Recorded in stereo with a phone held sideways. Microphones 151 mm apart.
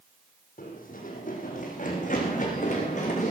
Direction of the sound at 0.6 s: 65° left (ahead or behind).